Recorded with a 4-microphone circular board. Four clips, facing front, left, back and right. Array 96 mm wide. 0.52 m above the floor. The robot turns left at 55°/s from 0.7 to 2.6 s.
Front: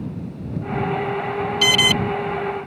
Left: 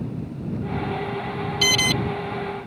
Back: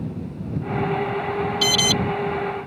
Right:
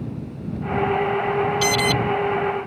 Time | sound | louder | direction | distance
1.6 | an alarm | right 4 dB, front 2 dB | 15° left | ?